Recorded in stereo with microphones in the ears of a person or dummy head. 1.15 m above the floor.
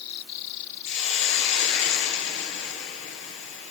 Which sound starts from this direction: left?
A hiss, at 0.8 s.